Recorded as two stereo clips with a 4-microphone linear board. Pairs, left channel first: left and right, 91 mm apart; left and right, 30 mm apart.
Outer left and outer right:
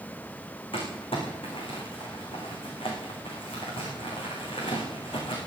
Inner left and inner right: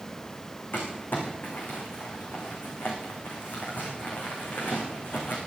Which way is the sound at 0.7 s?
90° left.